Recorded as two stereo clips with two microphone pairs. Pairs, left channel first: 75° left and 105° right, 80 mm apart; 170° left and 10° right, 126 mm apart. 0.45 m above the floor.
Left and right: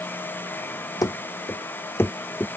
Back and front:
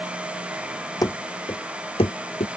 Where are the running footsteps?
110° left; by 2.5 s 140° left.